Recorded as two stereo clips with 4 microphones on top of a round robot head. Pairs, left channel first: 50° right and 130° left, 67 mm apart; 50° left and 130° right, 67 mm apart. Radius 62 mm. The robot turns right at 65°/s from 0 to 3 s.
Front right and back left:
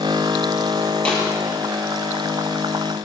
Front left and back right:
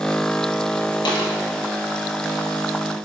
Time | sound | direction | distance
1.1 | a snare drum | 25° left | 7 m